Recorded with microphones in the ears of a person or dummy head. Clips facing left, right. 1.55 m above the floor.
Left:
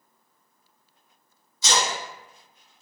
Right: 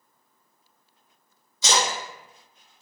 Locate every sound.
1.6 s a splash: 60° right (ahead or behind), 0.9 m